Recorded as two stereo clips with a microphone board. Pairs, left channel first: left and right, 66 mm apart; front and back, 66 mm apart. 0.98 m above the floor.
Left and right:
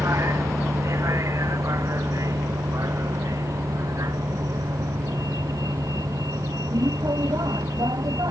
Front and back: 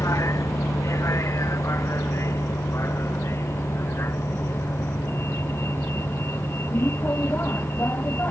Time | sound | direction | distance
0.0 | a vehicle | 45° right | ?